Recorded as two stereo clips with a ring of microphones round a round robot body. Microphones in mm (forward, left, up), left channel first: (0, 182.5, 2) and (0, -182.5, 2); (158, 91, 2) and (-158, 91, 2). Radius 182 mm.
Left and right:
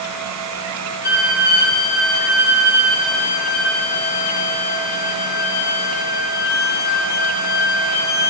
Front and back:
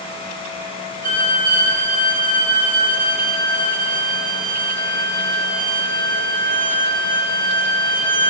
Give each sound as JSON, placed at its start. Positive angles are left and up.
{"t": 1.0, "sound": "a violin", "azimuth_deg": 135, "distance_m": 1.6}